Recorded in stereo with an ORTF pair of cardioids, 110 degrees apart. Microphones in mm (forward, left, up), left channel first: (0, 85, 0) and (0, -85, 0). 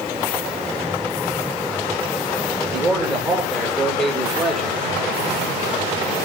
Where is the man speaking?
Straight ahead, 6.5 m; by 4.8 s 5° left, 5 m.